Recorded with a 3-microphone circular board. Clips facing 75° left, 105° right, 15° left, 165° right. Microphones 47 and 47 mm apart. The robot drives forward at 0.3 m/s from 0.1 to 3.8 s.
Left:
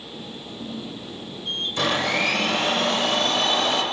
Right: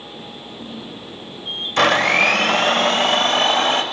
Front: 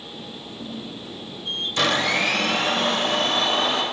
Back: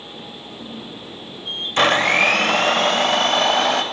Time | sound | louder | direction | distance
1.8 | a blender | right 8 dB, back 6 dB | 115° right | 0.7 m